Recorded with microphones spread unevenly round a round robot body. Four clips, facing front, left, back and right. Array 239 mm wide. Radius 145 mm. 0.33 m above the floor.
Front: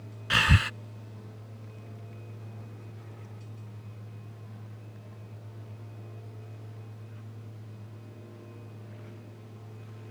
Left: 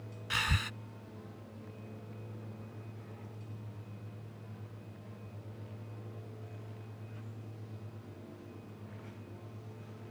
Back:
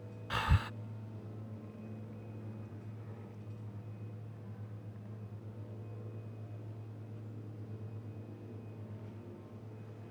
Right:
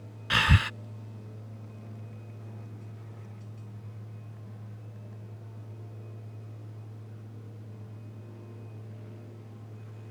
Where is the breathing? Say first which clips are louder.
Right 9 dB, front 9 dB; 35° right.